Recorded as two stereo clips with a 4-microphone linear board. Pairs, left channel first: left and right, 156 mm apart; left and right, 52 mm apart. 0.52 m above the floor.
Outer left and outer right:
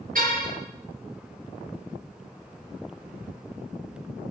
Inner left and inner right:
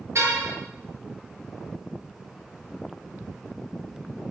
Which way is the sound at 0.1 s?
65° right (ahead or behind).